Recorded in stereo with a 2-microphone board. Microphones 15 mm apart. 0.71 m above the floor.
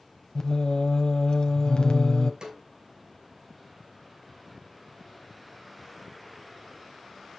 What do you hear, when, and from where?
0.3 s singing: 50° left (ahead or behind), 1.2 m
2.4 s a snare drum: 60° right (ahead or behind), 3 m